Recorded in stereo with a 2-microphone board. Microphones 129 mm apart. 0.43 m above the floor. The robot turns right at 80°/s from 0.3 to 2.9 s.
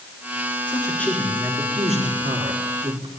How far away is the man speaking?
About 5 m.